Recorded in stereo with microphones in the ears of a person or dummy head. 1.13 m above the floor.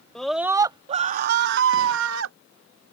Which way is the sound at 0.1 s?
5° left (ahead or behind).